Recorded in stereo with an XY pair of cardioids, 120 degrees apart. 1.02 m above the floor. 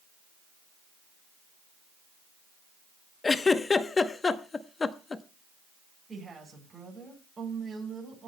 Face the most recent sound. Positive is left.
turn(degrees=-25)